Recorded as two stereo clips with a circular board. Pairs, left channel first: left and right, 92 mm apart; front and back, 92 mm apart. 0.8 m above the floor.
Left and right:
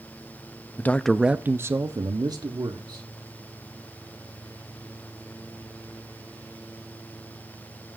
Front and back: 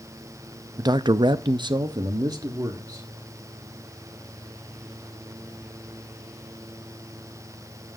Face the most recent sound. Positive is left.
turn(degrees=-130)